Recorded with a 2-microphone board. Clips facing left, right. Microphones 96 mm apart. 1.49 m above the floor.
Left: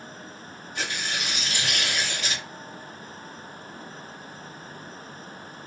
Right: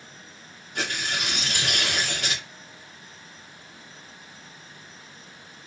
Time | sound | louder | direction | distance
0.8 | tearing paper | right 2 dB | 55° right (ahead or behind) | 0.8 m